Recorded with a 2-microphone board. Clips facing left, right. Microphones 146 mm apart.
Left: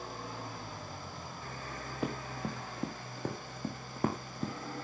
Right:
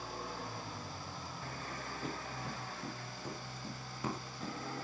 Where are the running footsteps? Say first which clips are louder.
Left 8 dB; 75° left (ahead or behind), 3 m; by 4.5 s 50° left (ahead or behind), 2.5 m.